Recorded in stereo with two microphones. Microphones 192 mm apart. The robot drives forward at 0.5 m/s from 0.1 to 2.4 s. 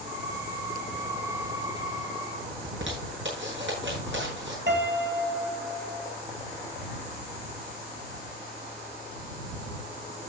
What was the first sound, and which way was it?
A zipper, 85° right.